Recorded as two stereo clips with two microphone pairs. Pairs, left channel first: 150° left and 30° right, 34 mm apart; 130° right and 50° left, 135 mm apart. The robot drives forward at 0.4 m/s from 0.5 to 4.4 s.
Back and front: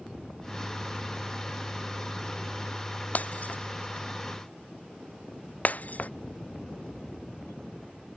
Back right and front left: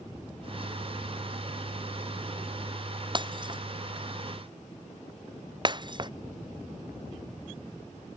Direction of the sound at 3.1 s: 105° left.